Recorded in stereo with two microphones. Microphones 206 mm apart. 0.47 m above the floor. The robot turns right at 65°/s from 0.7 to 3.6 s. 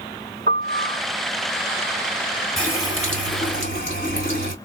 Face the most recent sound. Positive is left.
turn(degrees=70)